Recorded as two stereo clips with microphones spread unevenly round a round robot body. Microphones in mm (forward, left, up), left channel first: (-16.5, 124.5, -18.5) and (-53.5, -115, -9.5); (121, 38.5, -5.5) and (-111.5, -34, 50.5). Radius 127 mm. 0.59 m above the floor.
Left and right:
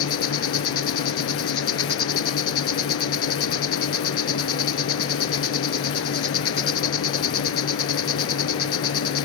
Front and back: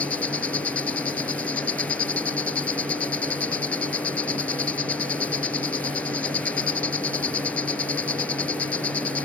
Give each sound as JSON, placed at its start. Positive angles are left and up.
{"t": 0.0, "sound": "an insect", "azimuth_deg": 105}